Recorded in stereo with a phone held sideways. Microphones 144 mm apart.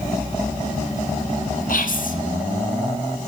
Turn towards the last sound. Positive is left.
turn(degrees=70)  # may be behind; listen again after turning